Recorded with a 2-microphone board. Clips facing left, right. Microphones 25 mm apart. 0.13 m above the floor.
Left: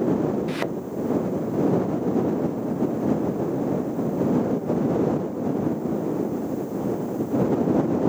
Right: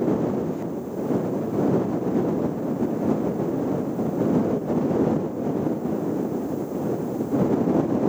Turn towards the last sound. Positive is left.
turn(degrees=80)